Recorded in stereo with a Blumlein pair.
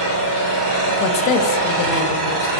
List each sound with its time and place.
0.0 s an engine running: 35° right, 3 m
1.0 s a woman speaking: 35° left, 0.9 m